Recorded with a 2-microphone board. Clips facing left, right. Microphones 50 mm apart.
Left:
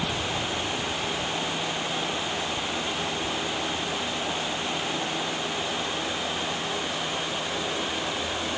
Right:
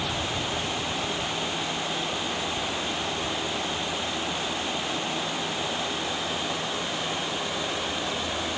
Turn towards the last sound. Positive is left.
No sound to turn to.